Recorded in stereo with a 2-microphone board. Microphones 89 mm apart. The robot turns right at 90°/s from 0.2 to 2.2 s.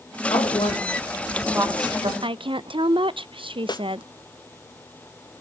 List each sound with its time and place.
0.3 s a woman speaking: 80° left, 5.5 m; by 2.1 s 80° right, 5.5 m
2.2 s a woman speaking: 75° right (ahead or behind), 0.6 m
3.7 s a snare drum: 50° left (ahead or behind), 0.7 m